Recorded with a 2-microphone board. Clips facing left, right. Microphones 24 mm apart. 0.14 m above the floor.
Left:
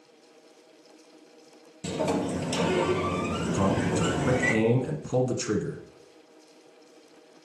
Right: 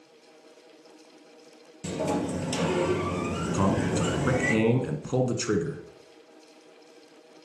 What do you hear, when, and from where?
1.8 s a sliding door: 10° left (ahead or behind), 2 m
3.5 s a man speaking: 15° right (ahead or behind), 1.2 m